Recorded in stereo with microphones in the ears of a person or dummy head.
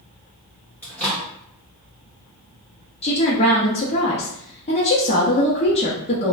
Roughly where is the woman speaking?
Left.